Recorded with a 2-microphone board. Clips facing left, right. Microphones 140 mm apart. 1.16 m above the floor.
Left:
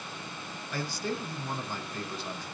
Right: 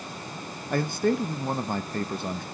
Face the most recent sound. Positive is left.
turn(degrees=-55)  # may be behind; listen again after turning